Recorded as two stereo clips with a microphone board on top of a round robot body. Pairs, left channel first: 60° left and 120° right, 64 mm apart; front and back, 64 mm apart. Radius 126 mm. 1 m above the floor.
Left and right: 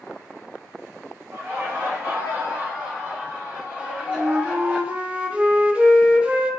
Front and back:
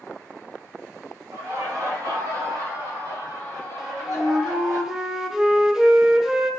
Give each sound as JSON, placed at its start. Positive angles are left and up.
{"t": 1.3, "sound": "laughter", "azimuth_deg": -160, "distance_m": 1.9}
{"t": 3.8, "sound": "a flute", "azimuth_deg": -115, "distance_m": 0.7}